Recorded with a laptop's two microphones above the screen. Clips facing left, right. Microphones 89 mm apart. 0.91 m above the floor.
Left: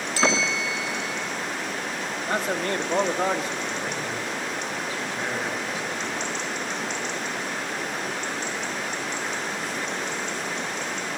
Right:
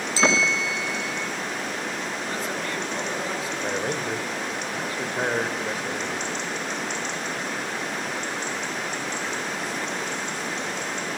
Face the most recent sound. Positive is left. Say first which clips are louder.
# right 3 dB
turn(degrees=-55)  # may be behind; listen again after turning